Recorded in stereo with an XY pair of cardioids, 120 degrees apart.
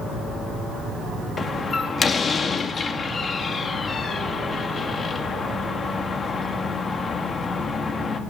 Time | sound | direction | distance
1.4 | a door slam | 35° left | 3 m